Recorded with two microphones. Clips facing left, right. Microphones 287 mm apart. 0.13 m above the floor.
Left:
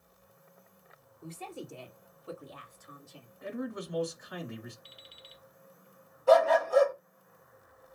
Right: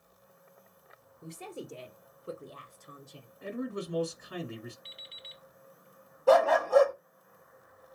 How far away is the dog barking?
About 1.2 m.